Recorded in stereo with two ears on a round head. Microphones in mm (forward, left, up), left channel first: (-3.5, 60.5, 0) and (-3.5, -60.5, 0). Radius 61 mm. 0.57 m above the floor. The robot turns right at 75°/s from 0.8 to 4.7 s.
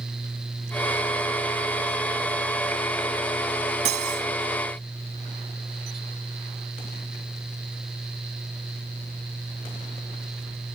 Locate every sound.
3.9 s cutlery clinking: 120° right; by 4.3 s 90° right